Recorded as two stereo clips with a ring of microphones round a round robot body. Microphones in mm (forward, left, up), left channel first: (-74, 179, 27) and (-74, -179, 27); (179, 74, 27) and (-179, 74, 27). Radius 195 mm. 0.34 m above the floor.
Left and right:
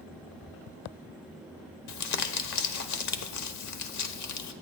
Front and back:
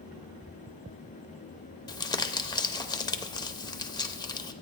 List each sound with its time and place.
1.9 s crumpling: 75° left, 0.8 m